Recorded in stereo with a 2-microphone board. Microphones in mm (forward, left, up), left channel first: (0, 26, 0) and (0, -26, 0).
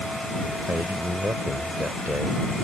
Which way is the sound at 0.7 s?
50° right (ahead or behind).